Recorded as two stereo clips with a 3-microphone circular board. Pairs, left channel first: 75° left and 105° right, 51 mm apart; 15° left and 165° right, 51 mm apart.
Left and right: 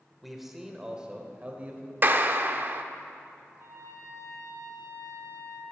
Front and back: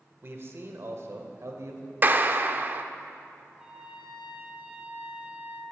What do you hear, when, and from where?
0.2 s a man speaking: 165° left, 1.5 m; by 1.9 s 160° right, 1.9 m
2.0 s a clap: 130° right, 0.6 m
3.5 s a trumpet: 95° right, 2.5 m